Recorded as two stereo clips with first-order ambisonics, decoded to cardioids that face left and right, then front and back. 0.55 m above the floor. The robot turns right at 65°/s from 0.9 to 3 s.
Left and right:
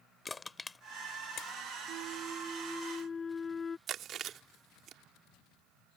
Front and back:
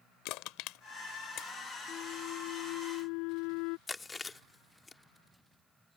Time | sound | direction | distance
0.2 | crushing | 10° left | ?
1.9 | a flute | 55° right | ?
3.9 | chewing | 70° right | ?